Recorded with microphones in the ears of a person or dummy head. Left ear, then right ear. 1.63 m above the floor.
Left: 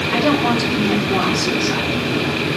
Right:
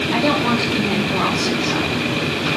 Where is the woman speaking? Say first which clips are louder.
Left 1 dB; 10° left (ahead or behind), 3.5 m.